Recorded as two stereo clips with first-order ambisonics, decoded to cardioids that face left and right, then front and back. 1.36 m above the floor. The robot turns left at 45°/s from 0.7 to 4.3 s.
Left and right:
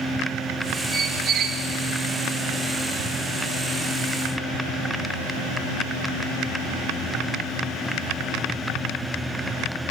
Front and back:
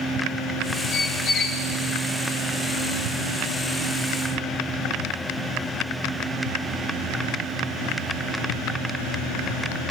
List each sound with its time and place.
0.9 s a squeak: 30° right, 0.7 m; by 1.6 s 60° right, 0.7 m